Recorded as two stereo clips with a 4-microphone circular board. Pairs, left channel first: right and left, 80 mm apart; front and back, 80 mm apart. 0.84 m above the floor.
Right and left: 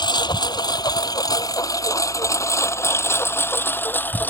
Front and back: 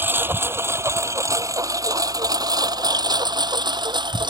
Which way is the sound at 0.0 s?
115° right.